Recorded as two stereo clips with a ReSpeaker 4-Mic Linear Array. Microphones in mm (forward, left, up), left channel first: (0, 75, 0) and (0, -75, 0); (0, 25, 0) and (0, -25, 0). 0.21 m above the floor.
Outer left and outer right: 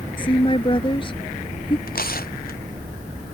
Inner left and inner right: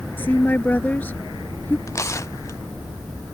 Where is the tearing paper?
90° left.